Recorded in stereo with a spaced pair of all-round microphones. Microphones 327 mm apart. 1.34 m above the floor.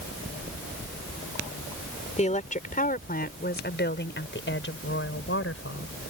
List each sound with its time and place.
2.2 s a woman speaking: 20° left (ahead or behind); by 6.1 s 45° left (ahead or behind)